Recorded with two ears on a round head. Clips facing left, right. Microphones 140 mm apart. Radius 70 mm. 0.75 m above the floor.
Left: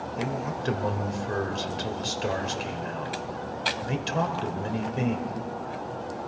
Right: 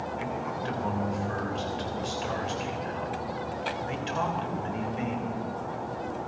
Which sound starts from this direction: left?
A man speaking, at 0.2 s.